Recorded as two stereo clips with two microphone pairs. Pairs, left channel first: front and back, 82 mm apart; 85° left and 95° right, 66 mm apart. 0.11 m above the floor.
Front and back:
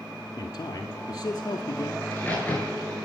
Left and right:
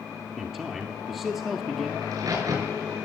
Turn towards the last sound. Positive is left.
turn(degrees=-70)